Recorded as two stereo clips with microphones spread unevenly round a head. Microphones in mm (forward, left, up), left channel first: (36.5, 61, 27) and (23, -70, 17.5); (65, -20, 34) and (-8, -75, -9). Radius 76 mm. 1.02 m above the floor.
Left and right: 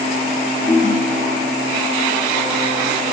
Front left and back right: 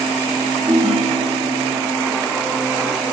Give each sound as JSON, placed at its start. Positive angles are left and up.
{"t": 0.7, "sound": "a ringtone", "azimuth_deg": 150, "distance_m": 1.3}